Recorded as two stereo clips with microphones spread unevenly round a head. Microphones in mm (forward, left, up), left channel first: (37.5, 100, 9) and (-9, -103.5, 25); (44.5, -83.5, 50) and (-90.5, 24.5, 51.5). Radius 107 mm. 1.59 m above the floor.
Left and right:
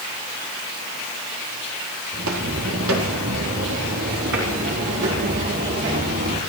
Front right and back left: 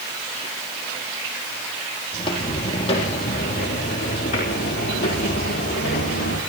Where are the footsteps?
100° right, 3.5 m; by 6.4 s 65° right, 5 m.